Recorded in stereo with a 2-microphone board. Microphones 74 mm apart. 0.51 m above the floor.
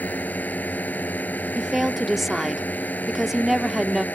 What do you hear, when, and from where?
0.0 s a drone: 20° left (ahead or behind)
1.6 s a woman speaking: 5° right (ahead or behind)